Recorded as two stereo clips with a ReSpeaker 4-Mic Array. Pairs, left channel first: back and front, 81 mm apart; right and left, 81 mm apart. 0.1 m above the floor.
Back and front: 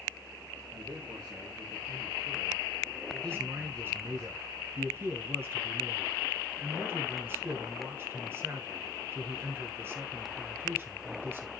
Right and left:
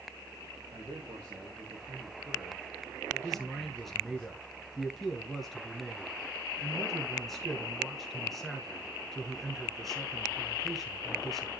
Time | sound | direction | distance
0.7 | a man speaking | 35° left | 4.5 m
3.2 | a man speaking | straight ahead | 1.9 m